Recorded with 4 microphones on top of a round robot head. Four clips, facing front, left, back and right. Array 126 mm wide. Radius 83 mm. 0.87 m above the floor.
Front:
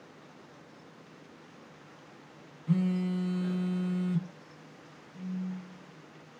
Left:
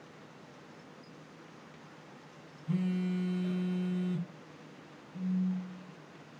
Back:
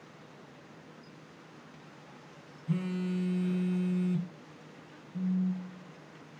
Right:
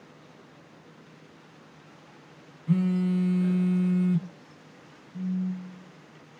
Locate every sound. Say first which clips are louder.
2.7 s a phone buzzing: right 8 dB, front 4 dB; 70° right, 0.9 m
5.1 s a phone buzzing: right 2 dB, back 6 dB; 150° right, 0.8 m